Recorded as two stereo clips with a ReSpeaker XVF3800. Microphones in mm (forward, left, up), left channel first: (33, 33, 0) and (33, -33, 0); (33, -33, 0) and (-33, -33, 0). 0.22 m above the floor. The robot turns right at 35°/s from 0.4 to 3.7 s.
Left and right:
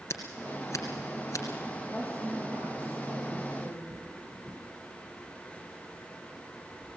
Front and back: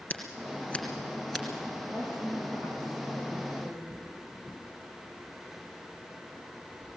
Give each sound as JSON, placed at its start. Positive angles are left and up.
{"t": 0.1, "sound": "scissors", "azimuth_deg": 65, "distance_m": 2.5}
{"t": 1.9, "sound": "a woman speaking", "azimuth_deg": -175, "distance_m": 5.0}